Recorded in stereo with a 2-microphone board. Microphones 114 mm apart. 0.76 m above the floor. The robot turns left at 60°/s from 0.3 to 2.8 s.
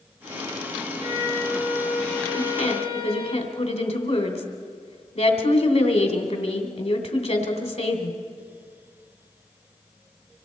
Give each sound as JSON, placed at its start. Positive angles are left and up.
{"t": 1.0, "sound": "a violin", "azimuth_deg": -125, "distance_m": 3.0}
{"t": 2.4, "sound": "a woman speaking", "side_deg": 80, "distance_m": 2.5}